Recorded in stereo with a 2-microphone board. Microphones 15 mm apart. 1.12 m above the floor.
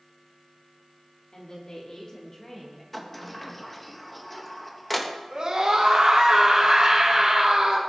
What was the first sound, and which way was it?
A woman speaking, 55° left (ahead or behind).